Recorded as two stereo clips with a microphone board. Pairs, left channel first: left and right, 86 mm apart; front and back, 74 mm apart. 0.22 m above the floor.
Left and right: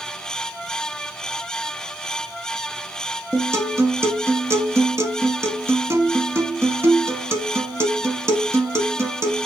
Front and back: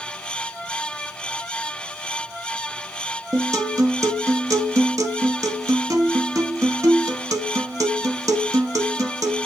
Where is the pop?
I don't hear a pop.